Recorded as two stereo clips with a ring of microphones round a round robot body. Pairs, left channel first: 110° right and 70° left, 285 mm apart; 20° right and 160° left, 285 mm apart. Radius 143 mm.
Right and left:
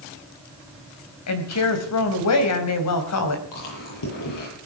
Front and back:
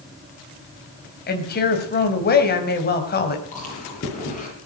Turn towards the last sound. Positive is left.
turn(degrees=-85)